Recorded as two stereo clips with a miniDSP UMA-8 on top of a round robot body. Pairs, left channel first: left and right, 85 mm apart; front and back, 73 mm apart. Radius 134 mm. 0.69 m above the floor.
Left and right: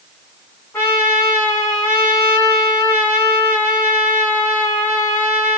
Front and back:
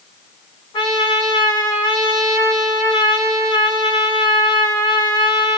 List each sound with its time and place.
0.7 s a trumpet: 20° left, 1.0 m